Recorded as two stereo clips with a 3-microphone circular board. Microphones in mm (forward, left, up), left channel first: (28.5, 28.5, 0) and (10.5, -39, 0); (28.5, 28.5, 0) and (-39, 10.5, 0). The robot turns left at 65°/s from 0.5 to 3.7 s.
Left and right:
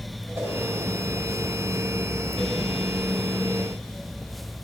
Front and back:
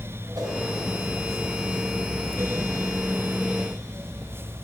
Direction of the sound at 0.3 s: 150° right.